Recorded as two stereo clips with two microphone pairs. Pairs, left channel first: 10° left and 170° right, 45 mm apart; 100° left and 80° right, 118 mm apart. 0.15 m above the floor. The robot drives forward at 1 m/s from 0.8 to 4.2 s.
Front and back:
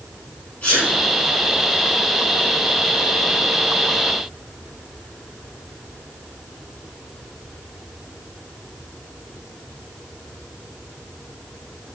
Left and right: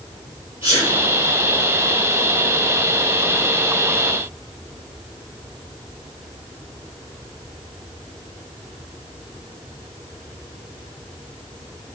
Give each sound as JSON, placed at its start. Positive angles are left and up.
{"t": 0.6, "sound": "a sneeze", "azimuth_deg": 60, "distance_m": 4.0}